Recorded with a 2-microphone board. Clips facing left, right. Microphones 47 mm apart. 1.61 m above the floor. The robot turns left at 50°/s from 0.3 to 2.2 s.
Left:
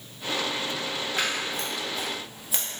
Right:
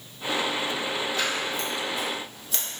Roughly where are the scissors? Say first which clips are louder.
Right 1 dB; left.